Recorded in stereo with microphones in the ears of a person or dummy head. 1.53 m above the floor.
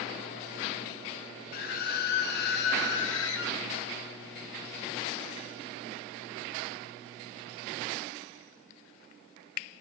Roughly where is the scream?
Left.